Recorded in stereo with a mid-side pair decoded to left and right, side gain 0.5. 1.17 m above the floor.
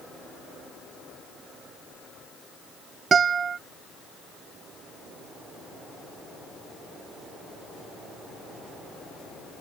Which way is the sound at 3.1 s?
40° right.